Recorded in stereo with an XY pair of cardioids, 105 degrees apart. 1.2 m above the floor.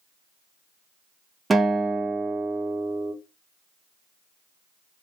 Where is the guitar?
25° right, 0.8 m.